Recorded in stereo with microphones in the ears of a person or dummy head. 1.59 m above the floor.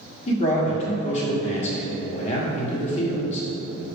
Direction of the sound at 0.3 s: 35° left (ahead or behind).